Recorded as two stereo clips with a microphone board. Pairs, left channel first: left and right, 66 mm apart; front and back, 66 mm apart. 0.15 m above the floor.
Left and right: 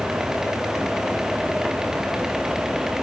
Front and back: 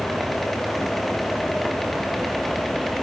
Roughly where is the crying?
I don't hear crying.